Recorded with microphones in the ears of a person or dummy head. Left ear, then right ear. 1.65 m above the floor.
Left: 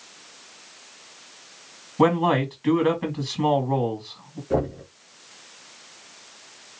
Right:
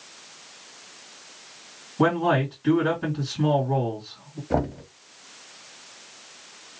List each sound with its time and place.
2.0 s a man speaking: 75° left (ahead or behind), 2.0 m
4.5 s knocking: 15° right (ahead or behind), 0.9 m